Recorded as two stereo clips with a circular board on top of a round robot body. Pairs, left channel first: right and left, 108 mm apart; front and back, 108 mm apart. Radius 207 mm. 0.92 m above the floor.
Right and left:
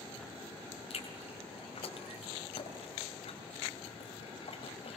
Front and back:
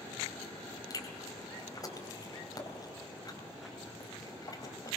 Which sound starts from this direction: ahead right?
Chewing, at 0.9 s.